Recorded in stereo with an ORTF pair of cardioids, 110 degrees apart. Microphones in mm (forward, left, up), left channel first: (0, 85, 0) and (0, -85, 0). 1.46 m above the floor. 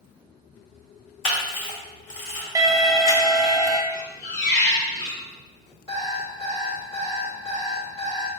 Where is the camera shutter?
45° left, 1.8 m.